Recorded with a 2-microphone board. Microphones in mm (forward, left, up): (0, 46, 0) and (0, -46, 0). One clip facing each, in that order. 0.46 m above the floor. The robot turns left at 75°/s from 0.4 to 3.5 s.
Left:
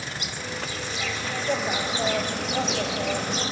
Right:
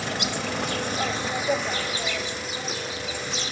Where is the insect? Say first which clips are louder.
Right 6 dB; 90° right, 0.9 m; by 3.5 s 35° left, 0.9 m.